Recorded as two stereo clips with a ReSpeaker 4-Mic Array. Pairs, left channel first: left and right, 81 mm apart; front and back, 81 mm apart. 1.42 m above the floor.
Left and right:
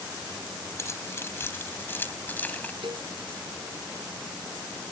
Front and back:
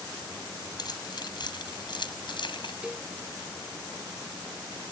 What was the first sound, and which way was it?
Keys jangling, 35° left.